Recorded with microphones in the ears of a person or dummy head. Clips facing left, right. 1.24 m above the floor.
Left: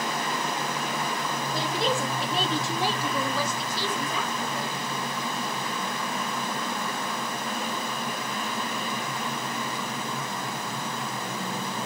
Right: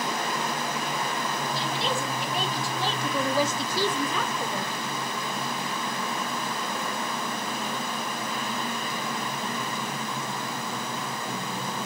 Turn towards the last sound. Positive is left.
turn(degrees=-55)  # may be behind; listen again after turning